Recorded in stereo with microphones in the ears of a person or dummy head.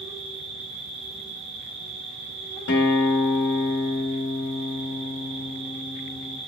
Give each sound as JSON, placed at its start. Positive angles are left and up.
{"t": 0.0, "sound": "an insect", "side_deg": -75, "distance_m": 3.0}
{"t": 2.7, "sound": "a guitar", "side_deg": 70, "distance_m": 1.2}